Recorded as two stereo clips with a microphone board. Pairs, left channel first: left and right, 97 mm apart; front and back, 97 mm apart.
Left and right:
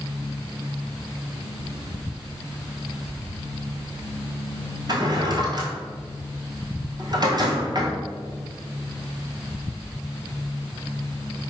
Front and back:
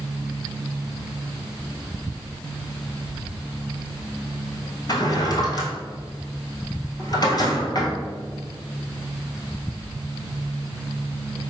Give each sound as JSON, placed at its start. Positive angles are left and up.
{"t": 4.9, "sound": "a drawer", "azimuth_deg": -45, "distance_m": 1.0}